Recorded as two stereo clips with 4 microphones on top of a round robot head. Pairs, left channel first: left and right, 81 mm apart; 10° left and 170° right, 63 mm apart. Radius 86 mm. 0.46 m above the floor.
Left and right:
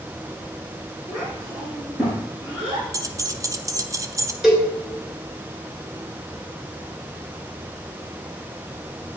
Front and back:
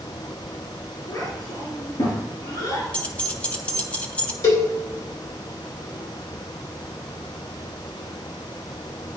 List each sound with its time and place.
1.1 s a child speaking: 5° left, 4 m; by 2.8 s 15° right, 5 m
2.9 s keys jangling: 55° right, 0.9 m
4.4 s a cowbell: 5° right, 2.5 m